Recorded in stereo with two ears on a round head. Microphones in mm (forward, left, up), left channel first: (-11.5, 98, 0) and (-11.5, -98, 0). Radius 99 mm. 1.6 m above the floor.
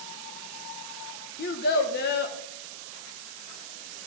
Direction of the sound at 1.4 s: 45° left (ahead or behind).